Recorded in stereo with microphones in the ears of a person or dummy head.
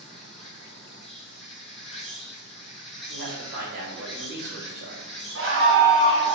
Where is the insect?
5° left (ahead or behind), 1.4 m.